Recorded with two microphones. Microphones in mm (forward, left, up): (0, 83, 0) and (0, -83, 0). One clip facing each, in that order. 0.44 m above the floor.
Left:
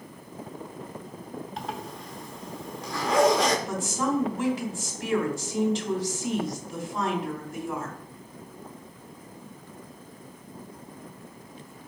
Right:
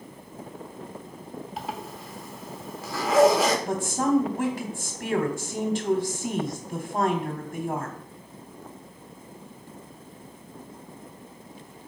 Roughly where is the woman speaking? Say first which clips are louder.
Right 4 dB; right.